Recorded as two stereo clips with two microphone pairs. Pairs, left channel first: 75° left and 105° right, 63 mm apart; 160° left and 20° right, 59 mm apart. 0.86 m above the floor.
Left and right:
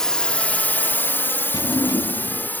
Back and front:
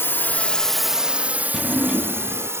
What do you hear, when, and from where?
0.0 s a drone: 150° left; by 2.6 s 15° left
1.5 s a drawer: 60° left